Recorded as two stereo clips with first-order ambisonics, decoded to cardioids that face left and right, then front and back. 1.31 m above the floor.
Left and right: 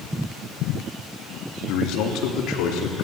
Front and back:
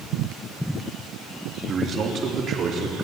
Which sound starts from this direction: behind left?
A man speaking, at 1.7 s.